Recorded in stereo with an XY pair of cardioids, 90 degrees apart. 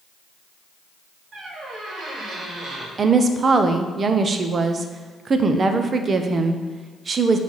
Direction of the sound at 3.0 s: 45° right.